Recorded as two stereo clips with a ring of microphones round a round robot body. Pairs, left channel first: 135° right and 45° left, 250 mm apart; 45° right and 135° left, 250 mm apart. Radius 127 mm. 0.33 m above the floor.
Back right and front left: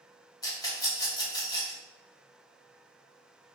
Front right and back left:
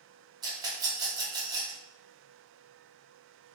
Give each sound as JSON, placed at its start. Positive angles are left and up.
{"t": 0.4, "sound": "a rattle", "azimuth_deg": 180, "distance_m": 0.7}